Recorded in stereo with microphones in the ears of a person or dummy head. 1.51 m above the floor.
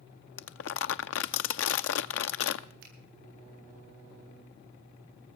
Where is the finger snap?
65° right (ahead or behind), 9.5 m.